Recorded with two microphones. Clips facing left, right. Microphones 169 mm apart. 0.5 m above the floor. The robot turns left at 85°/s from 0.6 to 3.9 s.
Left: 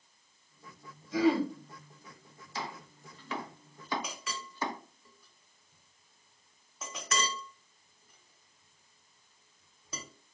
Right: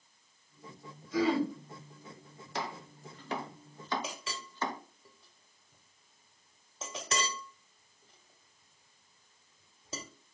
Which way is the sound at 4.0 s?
25° right (ahead or behind).